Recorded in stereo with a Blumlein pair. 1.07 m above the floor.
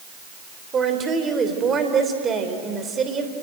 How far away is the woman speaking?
About 3.5 m.